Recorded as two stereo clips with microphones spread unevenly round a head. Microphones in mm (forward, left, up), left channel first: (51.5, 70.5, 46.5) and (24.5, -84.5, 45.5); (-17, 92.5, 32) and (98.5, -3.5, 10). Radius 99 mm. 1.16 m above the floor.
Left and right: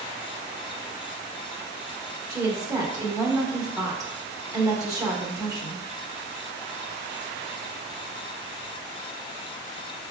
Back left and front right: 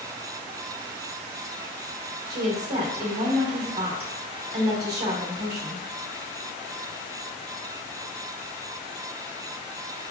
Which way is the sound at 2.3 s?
30° right.